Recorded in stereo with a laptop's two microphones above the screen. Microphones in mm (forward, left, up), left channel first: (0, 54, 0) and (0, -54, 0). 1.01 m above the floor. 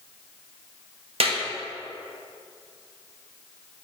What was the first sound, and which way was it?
A clap, 65° right (ahead or behind).